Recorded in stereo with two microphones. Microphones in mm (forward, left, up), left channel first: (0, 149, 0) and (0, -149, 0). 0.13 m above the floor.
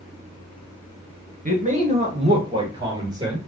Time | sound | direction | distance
1.4 | a man speaking | 30° right (ahead or behind) | 1.7 m